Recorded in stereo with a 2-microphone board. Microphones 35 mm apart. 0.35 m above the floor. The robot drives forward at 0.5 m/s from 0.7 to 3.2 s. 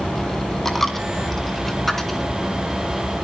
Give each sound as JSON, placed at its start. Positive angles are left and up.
{"t": 0.7, "sound": "a dropped coin", "side_deg": 10, "distance_m": 1.4}